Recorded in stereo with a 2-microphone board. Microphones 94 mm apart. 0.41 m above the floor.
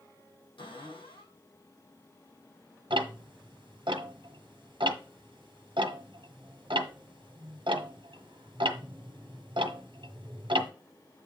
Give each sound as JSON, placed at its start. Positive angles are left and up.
{"t": 0.6, "sound": "a cupboard door", "side_deg": 75, "distance_m": 5.5}
{"t": 2.9, "sound": "ticking", "side_deg": -65, "distance_m": 1.1}